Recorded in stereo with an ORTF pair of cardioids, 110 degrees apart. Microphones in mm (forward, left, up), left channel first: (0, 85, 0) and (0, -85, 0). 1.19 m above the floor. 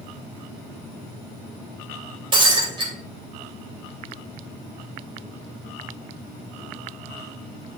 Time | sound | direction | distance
2.3 | breaking glass | 30° right | 3 m